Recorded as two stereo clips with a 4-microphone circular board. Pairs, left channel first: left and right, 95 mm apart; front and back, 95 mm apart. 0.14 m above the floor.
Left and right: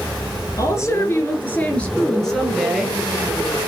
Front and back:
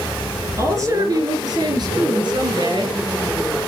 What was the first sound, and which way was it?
A woman speaking, 135° left.